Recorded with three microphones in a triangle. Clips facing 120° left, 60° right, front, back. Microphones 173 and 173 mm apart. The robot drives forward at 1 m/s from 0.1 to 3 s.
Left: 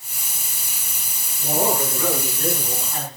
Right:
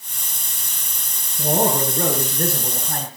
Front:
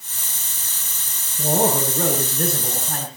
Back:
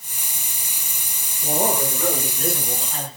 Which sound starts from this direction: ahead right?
A man speaking, at 1.4 s.